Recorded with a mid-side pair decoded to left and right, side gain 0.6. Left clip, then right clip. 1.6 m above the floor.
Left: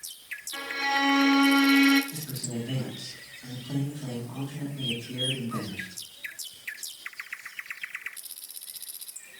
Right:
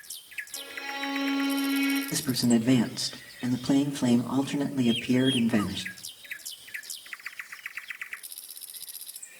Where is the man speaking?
70° right, 1.6 m.